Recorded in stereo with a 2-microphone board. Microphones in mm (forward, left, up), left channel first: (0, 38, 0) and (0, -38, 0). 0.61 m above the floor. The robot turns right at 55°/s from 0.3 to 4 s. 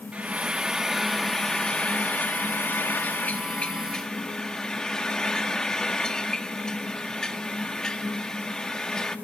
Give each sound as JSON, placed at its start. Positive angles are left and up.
{"t": 0.1, "sound": "frying", "side_deg": -15, "distance_m": 1.2}